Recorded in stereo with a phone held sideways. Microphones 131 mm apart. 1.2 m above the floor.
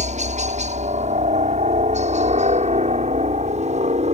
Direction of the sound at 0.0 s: 65° right (ahead or behind).